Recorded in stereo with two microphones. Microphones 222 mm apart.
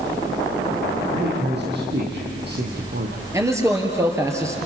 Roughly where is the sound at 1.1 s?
Right.